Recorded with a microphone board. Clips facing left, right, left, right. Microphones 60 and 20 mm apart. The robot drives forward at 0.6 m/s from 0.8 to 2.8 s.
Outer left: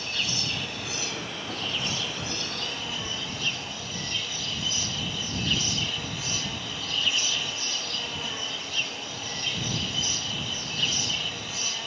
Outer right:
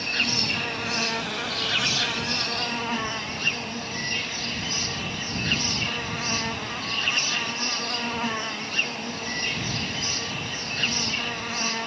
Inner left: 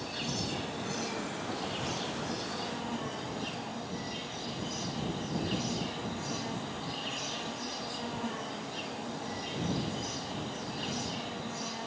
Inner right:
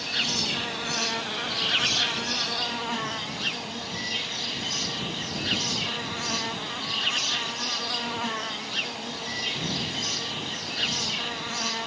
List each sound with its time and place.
0.0 s an insect: 55° right (ahead or behind), 0.9 m; by 11.9 s 50° right (ahead or behind), 1.0 m